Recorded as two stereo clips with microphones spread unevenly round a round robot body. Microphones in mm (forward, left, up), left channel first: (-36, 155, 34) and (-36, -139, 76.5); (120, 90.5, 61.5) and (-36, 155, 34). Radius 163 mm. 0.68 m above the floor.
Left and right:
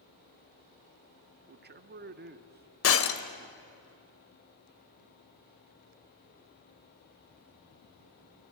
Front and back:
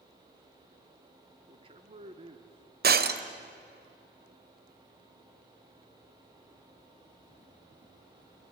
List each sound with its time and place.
1.5 s a man speaking: 150° right, 1.2 m
2.8 s breaking glass: 135° left, 1.4 m